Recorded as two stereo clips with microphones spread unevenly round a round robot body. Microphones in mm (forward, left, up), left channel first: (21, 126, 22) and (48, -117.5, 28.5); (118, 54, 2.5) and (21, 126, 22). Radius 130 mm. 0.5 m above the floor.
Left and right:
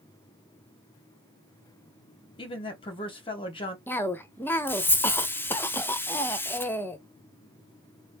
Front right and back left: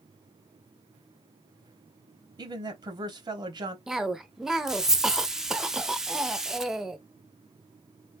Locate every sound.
2.4 s a woman speaking: 125° left, 0.9 m
3.9 s a cough: 40° left, 0.6 m